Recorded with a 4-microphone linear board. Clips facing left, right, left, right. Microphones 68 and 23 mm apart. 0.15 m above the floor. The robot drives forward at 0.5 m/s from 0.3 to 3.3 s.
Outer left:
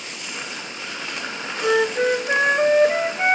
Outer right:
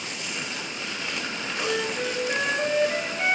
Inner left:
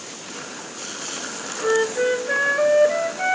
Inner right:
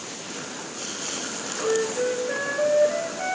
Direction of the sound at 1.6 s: 55° left (ahead or behind).